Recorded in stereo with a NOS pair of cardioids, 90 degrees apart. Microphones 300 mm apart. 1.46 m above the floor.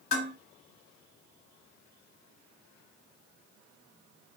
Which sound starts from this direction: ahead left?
Dishes clattering, at 0.1 s.